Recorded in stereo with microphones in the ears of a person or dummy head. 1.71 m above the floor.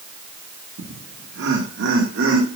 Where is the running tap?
No running tap in this recording.